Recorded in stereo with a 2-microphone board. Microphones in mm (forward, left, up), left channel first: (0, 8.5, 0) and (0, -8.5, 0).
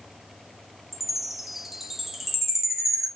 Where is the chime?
20° right (ahead or behind), 1.0 m.